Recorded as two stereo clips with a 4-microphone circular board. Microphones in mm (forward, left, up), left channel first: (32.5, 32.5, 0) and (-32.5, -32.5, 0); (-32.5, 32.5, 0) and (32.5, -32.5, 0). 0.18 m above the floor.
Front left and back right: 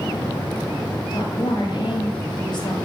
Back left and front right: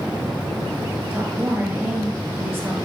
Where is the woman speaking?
20° left, 3 m.